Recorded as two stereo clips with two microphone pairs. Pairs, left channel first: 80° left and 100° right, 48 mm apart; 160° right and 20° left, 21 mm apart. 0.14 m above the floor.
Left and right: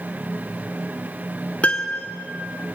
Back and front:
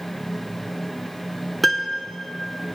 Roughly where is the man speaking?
No man speaking in this recording.